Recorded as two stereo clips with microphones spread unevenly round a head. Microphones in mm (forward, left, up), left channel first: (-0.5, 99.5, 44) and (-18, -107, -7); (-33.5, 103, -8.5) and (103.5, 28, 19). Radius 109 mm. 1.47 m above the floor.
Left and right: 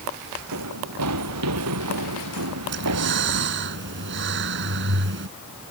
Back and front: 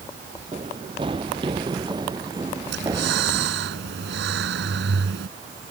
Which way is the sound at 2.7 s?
55° right.